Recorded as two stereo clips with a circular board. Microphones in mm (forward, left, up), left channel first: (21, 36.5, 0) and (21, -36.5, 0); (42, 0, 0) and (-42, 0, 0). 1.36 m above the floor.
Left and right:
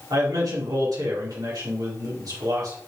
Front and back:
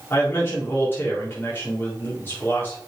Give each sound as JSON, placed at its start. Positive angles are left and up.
{"t": 0.1, "sound": "a man speaking", "azimuth_deg": -65, "distance_m": 4.0}